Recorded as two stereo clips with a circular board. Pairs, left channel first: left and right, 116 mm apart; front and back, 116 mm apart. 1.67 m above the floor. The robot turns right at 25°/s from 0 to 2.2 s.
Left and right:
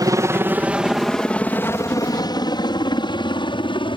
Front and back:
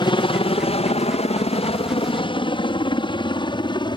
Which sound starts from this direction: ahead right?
A helicopter, at 0.0 s.